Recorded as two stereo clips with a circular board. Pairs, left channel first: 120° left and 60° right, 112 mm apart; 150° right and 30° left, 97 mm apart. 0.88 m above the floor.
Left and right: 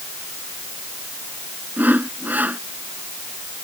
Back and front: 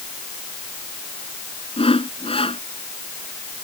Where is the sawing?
135° right.